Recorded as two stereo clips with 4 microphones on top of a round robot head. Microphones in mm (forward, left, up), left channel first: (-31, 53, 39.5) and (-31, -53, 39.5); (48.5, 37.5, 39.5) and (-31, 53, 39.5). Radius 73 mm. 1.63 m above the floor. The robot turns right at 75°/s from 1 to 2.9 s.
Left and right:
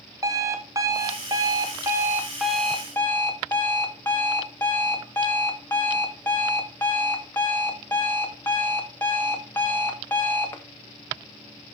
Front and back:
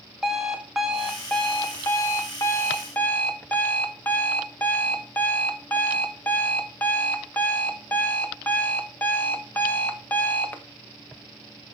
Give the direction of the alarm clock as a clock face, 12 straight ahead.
4 o'clock.